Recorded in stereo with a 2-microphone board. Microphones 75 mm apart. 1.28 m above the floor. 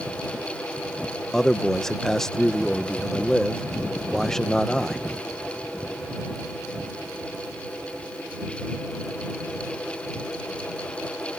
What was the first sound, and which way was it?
A man speaking, 5° left (ahead or behind).